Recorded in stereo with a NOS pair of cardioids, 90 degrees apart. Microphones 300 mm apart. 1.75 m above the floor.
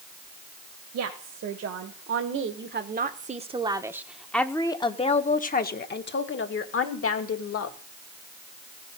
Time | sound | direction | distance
0.9 | a woman speaking | 65° right | 2 m